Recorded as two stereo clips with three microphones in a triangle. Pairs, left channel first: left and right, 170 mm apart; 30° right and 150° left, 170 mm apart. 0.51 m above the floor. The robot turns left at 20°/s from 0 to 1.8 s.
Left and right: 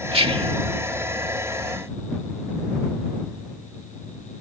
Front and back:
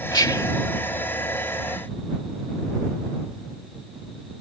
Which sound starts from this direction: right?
Whispering, at 0.1 s.